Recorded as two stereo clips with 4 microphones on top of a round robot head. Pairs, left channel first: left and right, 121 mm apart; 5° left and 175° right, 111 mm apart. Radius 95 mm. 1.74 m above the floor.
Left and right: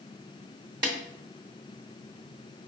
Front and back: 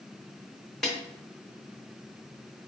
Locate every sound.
0.8 s a snare drum: 80° right, 0.8 m